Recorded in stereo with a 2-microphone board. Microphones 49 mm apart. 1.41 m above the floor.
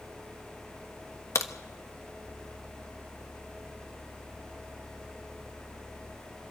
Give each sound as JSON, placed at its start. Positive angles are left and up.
{"t": 1.4, "sound": "a crack", "side_deg": 70, "distance_m": 1.3}